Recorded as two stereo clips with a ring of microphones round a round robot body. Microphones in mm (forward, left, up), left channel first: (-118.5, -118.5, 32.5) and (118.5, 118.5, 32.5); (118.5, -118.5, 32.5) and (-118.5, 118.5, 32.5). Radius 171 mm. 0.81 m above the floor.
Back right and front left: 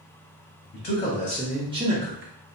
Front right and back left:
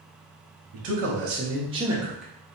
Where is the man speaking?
165° left, 0.8 m; by 2.5 s 30° left, 0.7 m.